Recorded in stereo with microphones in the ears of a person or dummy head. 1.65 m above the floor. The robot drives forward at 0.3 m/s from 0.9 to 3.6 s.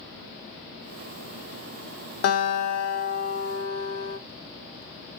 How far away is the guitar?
About 0.8 m.